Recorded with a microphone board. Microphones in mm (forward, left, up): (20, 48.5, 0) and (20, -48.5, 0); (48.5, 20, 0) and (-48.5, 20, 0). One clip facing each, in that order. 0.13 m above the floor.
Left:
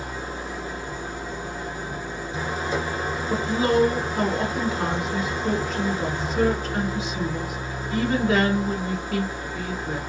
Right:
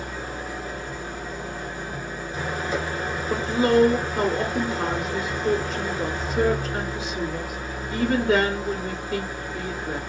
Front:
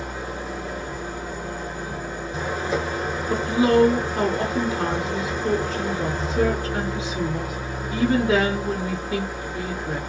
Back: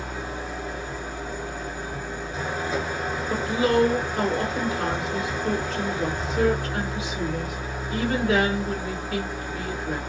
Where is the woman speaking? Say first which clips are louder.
Right 2 dB, front 4 dB; 10° right, 1.5 m.